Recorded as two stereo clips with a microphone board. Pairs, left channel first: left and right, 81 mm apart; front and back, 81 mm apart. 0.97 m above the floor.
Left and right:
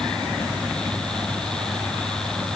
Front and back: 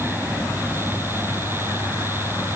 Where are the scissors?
No scissors in this recording.